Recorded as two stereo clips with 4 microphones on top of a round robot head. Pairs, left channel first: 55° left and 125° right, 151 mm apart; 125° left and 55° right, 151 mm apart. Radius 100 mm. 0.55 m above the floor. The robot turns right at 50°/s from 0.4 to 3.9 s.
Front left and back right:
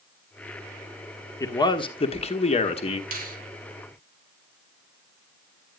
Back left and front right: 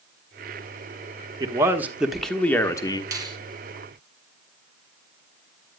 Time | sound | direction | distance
1.4 | a man speaking | straight ahead | 1.1 m
3.1 | a finger snap | 120° right | 2 m